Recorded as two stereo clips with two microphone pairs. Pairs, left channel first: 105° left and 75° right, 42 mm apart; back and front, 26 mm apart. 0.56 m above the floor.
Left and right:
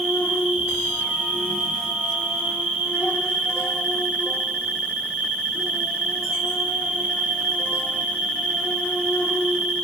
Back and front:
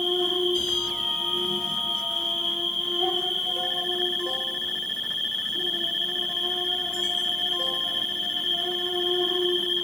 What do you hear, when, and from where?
0.0 s an insect: 105° right, 1.4 m